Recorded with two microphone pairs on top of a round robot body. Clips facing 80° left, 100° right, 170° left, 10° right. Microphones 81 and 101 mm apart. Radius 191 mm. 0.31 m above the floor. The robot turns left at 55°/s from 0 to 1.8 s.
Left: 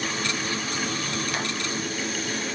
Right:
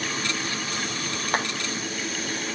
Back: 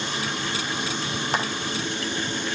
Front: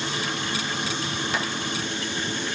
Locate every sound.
1.3 s a clap: 140° right, 3.5 m; by 1.5 s 150° right, 3.5 m